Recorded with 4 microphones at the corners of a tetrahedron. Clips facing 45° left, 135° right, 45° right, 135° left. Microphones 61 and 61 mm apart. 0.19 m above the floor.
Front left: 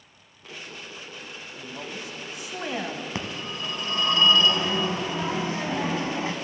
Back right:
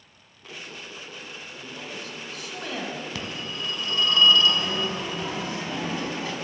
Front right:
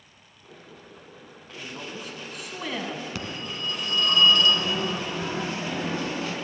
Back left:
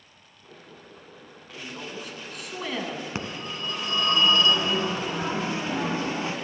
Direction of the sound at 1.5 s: 45° left.